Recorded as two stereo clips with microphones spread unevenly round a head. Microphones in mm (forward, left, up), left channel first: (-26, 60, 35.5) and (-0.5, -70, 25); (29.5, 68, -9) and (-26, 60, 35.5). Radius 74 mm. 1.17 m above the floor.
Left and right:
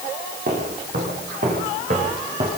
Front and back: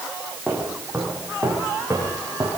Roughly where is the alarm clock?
No alarm clock in this recording.